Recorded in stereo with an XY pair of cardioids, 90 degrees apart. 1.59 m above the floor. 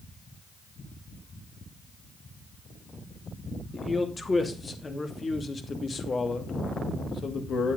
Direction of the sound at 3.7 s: 25° left.